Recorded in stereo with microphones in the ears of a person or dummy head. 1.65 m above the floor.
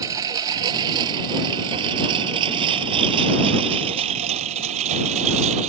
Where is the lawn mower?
15° right (ahead or behind); by 5.7 s 35° right (ahead or behind).